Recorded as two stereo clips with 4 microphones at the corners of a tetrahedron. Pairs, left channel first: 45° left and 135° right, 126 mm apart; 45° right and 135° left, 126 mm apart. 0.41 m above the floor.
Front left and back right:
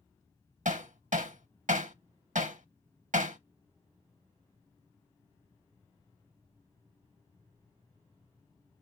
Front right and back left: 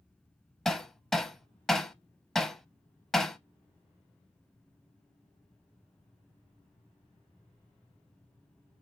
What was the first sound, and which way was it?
Hammering, 130° right.